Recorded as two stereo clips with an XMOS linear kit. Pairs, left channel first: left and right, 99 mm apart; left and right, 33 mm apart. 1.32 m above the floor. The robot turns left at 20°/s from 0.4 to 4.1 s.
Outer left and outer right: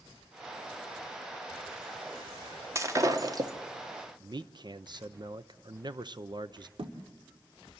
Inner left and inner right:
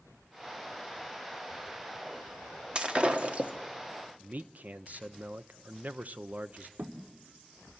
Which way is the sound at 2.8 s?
30° right (ahead or behind).